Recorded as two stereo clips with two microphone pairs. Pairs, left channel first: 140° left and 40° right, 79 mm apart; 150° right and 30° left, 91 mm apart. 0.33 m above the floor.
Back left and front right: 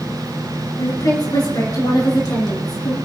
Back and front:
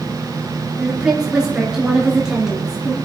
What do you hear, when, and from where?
0.8 s a woman speaking: 110° left, 4.5 m